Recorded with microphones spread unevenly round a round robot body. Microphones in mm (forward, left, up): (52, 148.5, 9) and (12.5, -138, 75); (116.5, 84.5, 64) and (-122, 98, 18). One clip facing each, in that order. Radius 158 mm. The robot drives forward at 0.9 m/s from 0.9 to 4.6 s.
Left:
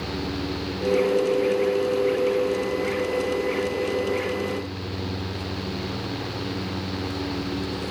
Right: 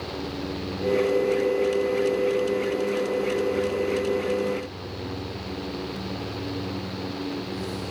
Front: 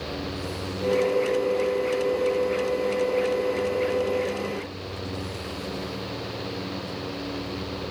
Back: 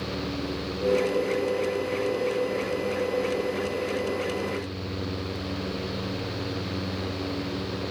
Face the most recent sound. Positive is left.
No sound to turn to.